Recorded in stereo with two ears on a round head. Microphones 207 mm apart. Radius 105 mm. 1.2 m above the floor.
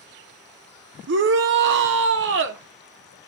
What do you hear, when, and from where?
1.1 s a shout: 50° right (ahead or behind), 0.6 m